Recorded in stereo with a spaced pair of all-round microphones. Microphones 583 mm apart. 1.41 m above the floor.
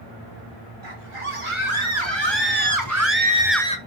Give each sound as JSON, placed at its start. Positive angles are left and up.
{"t": 0.8, "sound": "a scream", "side_deg": -60, "distance_m": 4.0}